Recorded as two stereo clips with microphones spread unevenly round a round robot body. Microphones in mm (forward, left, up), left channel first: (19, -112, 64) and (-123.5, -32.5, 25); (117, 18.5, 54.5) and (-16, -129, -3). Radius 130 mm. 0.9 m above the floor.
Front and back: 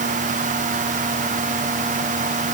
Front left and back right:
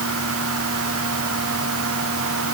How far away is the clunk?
No clunk in this recording.